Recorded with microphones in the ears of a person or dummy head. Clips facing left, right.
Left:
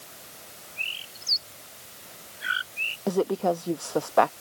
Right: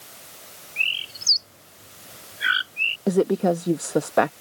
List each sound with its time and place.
0.8 s a bird: 75° right (ahead or behind)
3.1 s a woman speaking: 25° right (ahead or behind)